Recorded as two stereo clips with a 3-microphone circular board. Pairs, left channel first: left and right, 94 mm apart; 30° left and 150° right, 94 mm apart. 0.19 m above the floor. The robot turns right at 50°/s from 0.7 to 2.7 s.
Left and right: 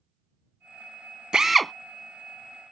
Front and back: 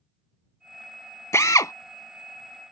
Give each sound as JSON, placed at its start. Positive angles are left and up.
{"t": 1.3, "sound": "a drill", "azimuth_deg": -15}